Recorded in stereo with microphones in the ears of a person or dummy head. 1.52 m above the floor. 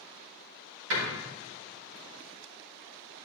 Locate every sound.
0.9 s a door slam: 80° right, 4.5 m